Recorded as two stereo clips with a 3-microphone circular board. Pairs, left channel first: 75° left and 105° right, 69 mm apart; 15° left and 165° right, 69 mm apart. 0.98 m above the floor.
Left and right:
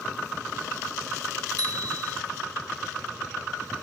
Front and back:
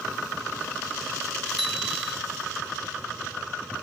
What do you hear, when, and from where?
1.6 s a bicycle bell: 80° right